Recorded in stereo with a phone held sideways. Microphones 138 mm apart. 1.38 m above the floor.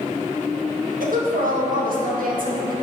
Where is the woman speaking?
85° right, 1.7 m.